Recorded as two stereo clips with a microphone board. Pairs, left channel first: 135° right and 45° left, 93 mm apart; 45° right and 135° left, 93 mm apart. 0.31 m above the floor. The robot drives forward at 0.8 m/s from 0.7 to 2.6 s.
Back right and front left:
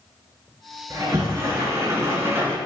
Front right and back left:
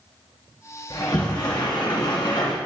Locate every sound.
0.9 s a sliding door: 10° right, 3 m; by 2.6 s 20° right, 1.6 m